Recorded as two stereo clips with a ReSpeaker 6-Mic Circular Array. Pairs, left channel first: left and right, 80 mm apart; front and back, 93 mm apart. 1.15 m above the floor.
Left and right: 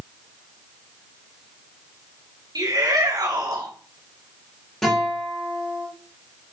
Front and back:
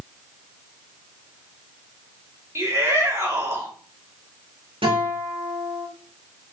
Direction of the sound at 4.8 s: 175° left.